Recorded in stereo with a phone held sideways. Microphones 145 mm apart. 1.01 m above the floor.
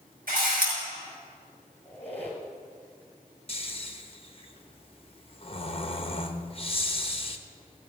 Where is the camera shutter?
85° right, 5.5 m.